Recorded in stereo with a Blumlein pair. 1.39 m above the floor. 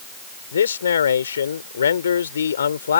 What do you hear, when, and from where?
0.5 s a man speaking: 70° left